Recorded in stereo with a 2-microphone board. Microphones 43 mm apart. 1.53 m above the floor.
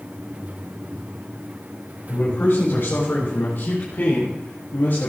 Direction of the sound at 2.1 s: 55° left (ahead or behind).